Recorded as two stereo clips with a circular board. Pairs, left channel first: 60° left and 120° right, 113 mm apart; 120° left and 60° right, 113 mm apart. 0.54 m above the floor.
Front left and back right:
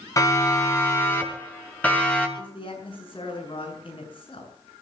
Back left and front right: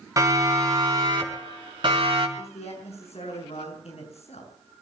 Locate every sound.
0.2 s a siren: straight ahead, 4.5 m; by 2.3 s 20° right, 5.5 m
2.4 s a man speaking: 100° left, 7.5 m